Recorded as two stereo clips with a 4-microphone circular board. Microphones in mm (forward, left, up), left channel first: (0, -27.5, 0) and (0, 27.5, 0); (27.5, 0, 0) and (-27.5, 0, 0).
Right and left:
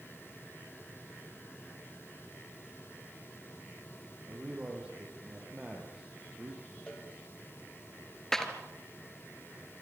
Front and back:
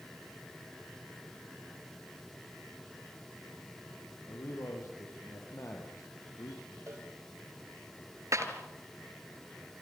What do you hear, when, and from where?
4.3 s a man speaking: 20° left, 7 m
6.9 s a cowbell: 160° right, 6.5 m
8.3 s a clap: 170° right, 2.5 m